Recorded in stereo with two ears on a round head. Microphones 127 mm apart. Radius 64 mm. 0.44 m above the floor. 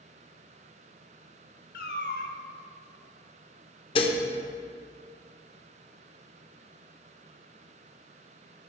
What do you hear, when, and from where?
1.7 s a cat meowing: 65° left (ahead or behind), 0.6 m
4.0 s dishes clattering: 35° left (ahead or behind), 0.6 m